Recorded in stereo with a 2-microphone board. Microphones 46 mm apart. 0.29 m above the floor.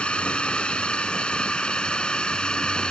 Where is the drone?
20° left (ahead or behind); by 2.9 s 15° left (ahead or behind).